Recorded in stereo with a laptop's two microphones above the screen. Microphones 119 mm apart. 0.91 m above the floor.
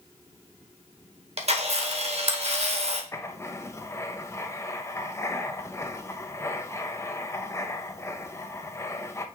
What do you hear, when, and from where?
1.4 s a camera shutter: 60° right (ahead or behind), 1.1 m
3.1 s writing: 25° left (ahead or behind), 0.6 m